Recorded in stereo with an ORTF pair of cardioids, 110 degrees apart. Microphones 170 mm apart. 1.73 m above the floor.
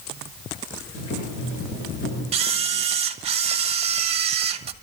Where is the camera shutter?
35° right, 1.0 m.